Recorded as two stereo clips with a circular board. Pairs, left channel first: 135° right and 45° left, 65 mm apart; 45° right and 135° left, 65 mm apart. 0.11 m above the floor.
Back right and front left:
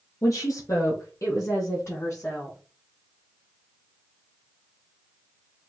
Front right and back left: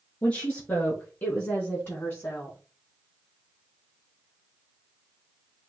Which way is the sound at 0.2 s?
105° right.